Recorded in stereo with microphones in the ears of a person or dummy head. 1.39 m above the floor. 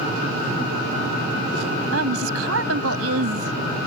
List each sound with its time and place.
1.9 s a woman speaking: 80° right